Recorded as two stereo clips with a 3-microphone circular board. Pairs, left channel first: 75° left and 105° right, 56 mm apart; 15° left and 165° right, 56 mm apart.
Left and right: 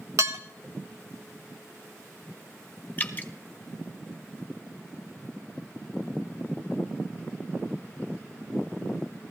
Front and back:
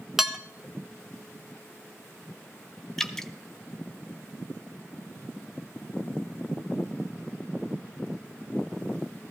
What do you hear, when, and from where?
0.2 s dishes clattering: 80° right, 0.8 m
3.0 s dripping: 95° left, 0.8 m